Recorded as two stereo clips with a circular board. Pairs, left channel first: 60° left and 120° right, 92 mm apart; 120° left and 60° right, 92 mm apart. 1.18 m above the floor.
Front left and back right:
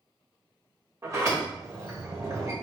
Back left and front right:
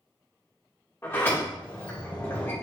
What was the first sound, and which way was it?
A sliding door, 175° right.